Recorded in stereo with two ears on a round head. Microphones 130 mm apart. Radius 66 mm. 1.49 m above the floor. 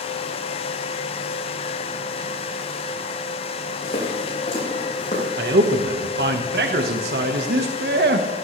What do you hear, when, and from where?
3.8 s footsteps: 40° left (ahead or behind), 7.5 m; by 5.3 s 50° left (ahead or behind), 8 m
5.4 s a man speaking: 80° right, 1.5 m